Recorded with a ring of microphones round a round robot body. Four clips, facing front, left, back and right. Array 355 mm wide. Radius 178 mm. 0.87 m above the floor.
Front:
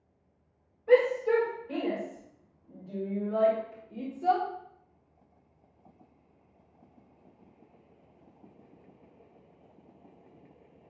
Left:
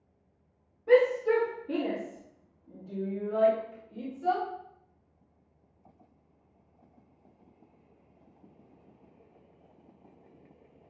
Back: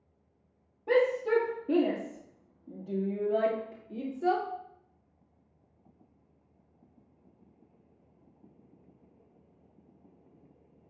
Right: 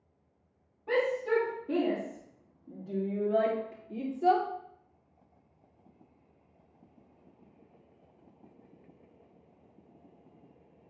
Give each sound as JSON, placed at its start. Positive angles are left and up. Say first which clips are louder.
{"t": 0.9, "sound": "a shout", "louder": "left 6 dB, front 3 dB", "azimuth_deg": 155, "distance_m": 2.5}